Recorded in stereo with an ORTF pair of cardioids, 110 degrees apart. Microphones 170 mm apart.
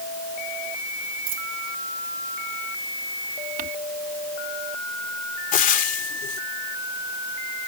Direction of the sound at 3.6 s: 60° right.